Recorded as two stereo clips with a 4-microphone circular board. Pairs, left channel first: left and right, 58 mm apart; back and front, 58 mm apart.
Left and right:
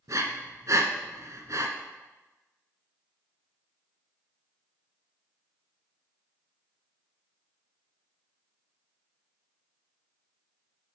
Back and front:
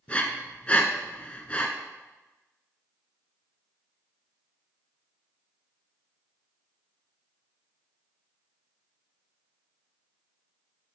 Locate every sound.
0.1 s breathing: 115° right, 0.8 m